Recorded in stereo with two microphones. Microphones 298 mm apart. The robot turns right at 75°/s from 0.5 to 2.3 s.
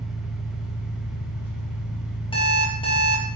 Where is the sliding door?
I don't hear a sliding door.